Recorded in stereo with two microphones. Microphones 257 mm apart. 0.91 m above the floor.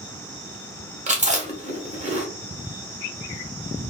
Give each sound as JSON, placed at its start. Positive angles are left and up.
{"t": 1.1, "sound": "chewing", "side_deg": -30, "distance_m": 0.8}